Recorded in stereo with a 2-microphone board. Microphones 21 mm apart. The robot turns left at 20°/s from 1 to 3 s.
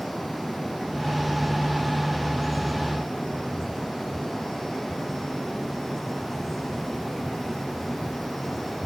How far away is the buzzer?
No buzzer in this recording.